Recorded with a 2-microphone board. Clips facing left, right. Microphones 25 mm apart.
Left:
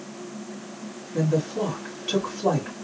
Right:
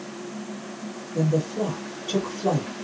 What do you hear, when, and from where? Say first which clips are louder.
1.1 s a woman speaking: even; 45° left (ahead or behind), 2.0 m